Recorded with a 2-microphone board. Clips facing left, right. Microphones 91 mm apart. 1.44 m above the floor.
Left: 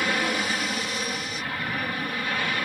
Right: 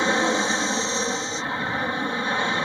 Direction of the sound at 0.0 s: 25° right (ahead or behind).